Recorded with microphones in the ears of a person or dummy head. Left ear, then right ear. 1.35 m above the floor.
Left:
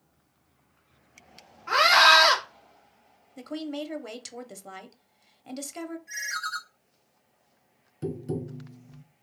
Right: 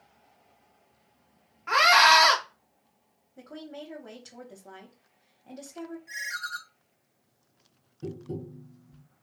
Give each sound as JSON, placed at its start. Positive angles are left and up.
{"t": 1.7, "sound": "a scream", "side_deg": -15, "distance_m": 1.3}
{"t": 3.4, "sound": "a woman speaking", "side_deg": 65, "distance_m": 0.9}
{"t": 6.1, "sound": "a ringtone", "side_deg": -20, "distance_m": 2.0}
{"t": 8.0, "sound": "tapping", "side_deg": 60, "distance_m": 0.5}